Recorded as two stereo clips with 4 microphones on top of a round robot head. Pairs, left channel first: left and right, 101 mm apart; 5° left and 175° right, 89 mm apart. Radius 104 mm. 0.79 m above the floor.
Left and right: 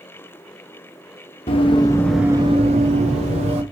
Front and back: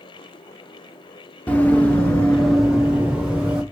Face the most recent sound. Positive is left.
turn(degrees=-95)